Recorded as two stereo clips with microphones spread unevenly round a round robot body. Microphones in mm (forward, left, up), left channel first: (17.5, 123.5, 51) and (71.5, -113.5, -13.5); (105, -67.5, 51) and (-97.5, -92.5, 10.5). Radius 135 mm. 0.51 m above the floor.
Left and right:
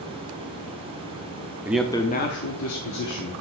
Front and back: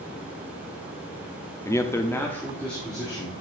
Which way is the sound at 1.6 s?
80° right.